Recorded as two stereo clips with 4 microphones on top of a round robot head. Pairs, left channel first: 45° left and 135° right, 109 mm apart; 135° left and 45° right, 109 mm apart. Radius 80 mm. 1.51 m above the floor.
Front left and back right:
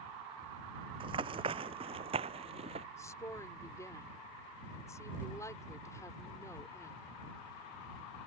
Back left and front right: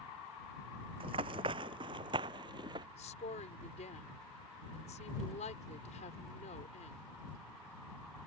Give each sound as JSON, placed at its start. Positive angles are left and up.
{"t": 1.0, "sound": "running footsteps", "azimuth_deg": -90}
{"t": 3.0, "sound": "a woman speaking", "azimuth_deg": 110}